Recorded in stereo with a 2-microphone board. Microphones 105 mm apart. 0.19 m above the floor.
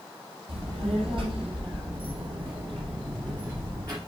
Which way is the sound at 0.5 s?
65° right (ahead or behind).